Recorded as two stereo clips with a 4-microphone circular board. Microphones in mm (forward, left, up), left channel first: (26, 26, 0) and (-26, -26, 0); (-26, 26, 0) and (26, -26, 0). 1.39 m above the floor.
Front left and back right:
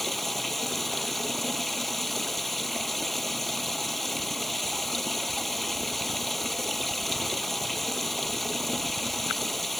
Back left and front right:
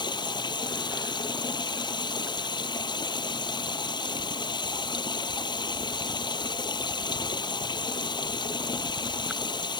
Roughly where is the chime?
I don't hear a chime.